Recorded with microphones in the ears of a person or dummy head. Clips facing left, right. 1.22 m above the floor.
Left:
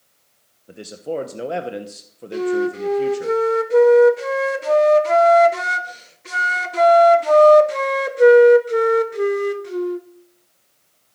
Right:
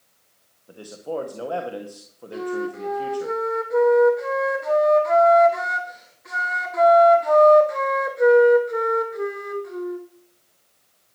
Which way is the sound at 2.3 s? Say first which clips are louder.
Left 7 dB; 40° left (ahead or behind).